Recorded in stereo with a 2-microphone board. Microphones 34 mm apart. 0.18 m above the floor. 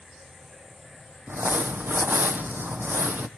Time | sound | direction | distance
1.3 | crumpling | 80° right | 1.0 m